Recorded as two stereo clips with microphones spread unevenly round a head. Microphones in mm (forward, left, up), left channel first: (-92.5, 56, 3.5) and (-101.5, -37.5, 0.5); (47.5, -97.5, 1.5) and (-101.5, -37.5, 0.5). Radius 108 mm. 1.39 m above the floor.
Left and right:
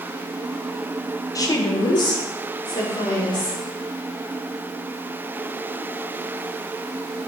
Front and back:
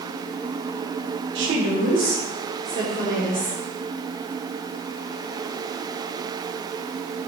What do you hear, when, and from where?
1.4 s a woman speaking: 140° left, 1.3 m; by 3.6 s 120° left, 4.5 m